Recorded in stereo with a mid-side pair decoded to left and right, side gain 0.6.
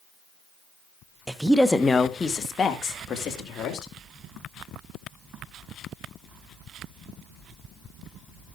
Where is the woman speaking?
15° right, 1.1 m; by 3.9 s 45° left, 3.5 m.